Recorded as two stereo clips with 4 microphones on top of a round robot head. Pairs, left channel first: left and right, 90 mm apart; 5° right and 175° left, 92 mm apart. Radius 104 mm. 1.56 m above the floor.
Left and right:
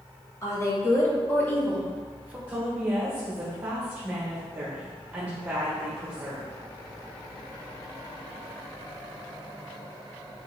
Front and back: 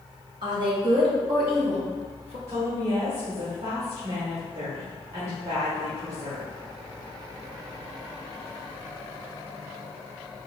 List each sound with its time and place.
0.4 s a woman speaking: 145° left, 1.9 m; by 2.4 s 155° right, 0.7 m
2.5 s a woman speaking: 155° right, 1.2 m